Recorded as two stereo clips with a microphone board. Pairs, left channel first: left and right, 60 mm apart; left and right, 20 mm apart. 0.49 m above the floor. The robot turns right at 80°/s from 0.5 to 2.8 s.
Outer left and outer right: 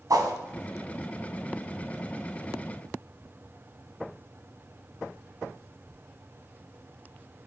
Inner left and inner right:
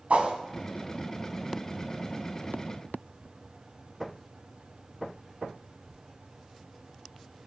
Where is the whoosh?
80° right, 2 m.